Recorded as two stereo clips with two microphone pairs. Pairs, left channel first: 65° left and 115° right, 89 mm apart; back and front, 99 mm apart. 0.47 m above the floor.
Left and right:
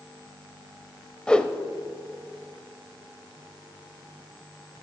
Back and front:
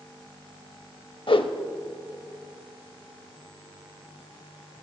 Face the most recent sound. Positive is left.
turn(degrees=150)